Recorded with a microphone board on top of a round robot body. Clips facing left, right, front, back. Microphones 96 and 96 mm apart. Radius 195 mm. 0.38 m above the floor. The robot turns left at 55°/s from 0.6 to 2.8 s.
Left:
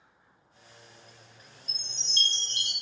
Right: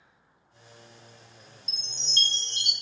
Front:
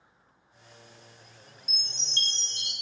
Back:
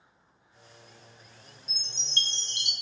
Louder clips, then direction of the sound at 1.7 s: Right 3 dB, back 2 dB; 105° right.